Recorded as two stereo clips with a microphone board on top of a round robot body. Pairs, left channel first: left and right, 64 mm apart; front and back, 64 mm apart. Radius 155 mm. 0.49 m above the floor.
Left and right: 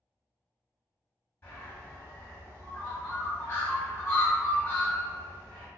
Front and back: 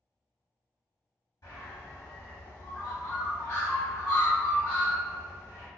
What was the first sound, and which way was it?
A bird, 25° left.